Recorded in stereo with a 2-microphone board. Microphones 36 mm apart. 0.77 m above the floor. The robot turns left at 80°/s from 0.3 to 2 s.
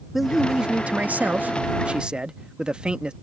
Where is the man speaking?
10° right; by 3.1 s 145° right.